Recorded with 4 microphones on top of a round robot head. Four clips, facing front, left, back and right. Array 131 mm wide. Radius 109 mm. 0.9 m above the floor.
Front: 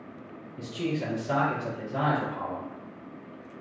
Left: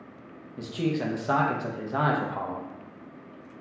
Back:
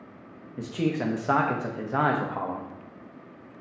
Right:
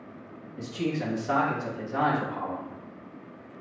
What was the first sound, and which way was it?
A man speaking, 160° left.